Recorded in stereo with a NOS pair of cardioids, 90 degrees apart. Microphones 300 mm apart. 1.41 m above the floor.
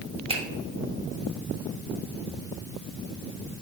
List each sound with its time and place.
0.3 s a finger snap: 20° right, 0.8 m